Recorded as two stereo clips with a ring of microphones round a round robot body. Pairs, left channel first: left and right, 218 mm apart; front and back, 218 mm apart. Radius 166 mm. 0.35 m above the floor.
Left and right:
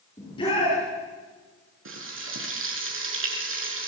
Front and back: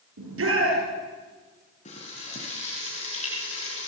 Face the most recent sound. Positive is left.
turn(degrees=-65)